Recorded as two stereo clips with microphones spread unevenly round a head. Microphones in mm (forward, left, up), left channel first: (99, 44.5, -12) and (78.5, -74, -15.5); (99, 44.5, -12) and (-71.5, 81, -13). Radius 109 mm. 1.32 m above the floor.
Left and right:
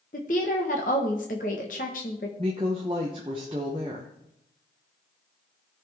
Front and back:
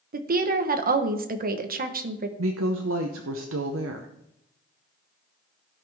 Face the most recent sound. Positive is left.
turn(degrees=-170)